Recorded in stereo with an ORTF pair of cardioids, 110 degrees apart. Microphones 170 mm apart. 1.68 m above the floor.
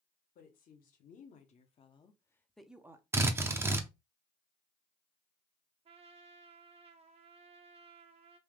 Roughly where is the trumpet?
Ahead right.